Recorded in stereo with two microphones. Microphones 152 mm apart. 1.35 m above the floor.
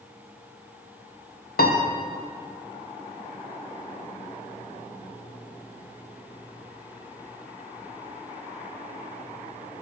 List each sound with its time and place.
1.6 s a piano: 80° left, 1.3 m